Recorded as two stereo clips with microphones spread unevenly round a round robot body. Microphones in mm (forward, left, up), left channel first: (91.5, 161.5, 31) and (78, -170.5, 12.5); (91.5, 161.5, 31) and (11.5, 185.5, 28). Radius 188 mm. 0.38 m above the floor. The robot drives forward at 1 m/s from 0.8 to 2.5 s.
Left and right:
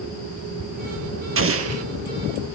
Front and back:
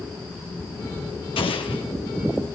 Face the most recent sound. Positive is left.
turn(degrees=-65)